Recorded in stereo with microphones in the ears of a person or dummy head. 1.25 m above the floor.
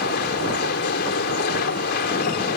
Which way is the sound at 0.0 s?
55° left (ahead or behind).